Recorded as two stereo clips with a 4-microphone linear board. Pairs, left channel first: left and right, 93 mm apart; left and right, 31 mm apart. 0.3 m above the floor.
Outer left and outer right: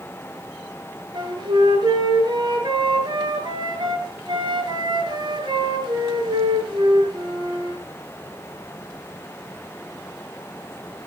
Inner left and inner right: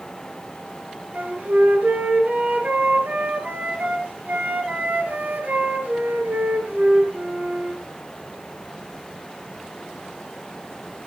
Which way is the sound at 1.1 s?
50° right (ahead or behind).